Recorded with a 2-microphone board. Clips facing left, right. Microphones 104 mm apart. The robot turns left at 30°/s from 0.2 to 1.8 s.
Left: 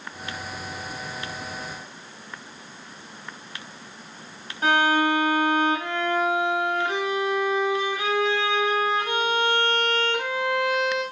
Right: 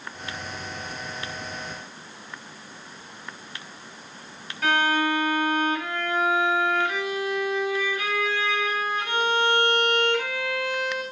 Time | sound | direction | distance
4.6 | a violin | 30° left (ahead or behind) | 2 m